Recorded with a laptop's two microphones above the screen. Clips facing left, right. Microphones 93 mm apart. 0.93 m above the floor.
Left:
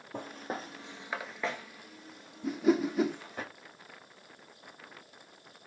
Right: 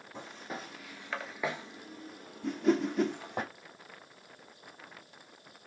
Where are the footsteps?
50° left (ahead or behind), 1.6 m; by 3.4 s 70° right (ahead or behind), 2.5 m.